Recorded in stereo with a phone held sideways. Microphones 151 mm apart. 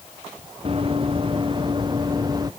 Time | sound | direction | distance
0.7 | running footsteps | 35° right (ahead or behind) | ?